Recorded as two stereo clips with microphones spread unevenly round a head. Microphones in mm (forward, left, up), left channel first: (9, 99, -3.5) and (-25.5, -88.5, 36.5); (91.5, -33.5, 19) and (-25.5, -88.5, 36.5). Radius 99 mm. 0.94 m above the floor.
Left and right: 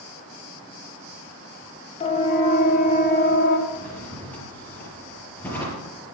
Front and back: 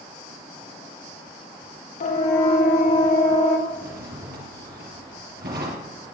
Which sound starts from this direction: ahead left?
A siren, at 2.0 s.